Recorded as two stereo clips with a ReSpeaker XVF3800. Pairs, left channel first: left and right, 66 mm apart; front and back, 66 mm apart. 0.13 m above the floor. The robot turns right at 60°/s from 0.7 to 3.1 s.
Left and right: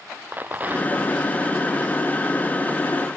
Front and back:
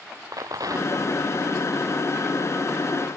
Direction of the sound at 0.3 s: 155° right.